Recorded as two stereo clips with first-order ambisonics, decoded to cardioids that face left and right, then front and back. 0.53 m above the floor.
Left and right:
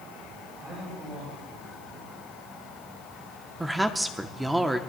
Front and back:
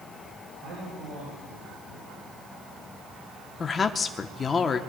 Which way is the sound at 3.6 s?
20° right.